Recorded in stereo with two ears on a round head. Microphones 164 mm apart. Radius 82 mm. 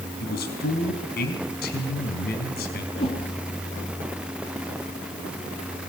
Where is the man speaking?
60° left (ahead or behind), 4.5 m.